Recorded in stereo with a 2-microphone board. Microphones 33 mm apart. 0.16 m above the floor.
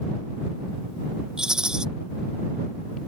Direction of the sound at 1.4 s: 25° right (ahead or behind).